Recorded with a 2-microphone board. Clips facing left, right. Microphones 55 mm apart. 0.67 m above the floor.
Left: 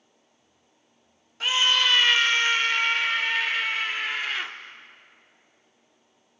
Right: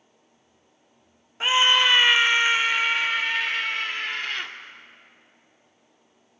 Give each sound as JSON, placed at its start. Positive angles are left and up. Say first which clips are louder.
{"t": 1.4, "sound": "a scream", "louder": "right 3 dB", "side_deg": -25, "distance_m": 0.8}